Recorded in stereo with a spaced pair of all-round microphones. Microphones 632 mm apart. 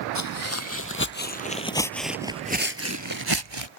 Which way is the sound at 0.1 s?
25° left (ahead or behind).